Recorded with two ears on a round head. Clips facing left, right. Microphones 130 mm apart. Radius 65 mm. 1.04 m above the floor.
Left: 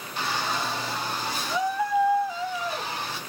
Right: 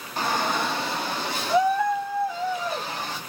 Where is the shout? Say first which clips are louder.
Right 4 dB; 35° right (ahead or behind), 0.8 m; by 3.2 s 40° right (ahead or behind), 2.5 m.